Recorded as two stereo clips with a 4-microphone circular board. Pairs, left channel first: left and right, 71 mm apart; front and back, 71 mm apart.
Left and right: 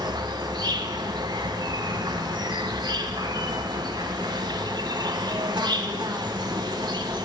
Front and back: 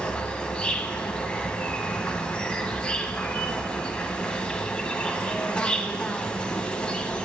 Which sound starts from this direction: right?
An insect, at 0.0 s.